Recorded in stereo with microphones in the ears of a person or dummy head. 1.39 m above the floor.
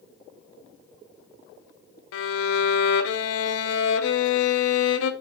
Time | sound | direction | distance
2.1 | a violin | 70° left (ahead or behind) | 0.7 m